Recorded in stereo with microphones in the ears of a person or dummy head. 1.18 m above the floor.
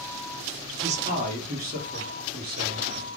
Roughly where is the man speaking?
Right.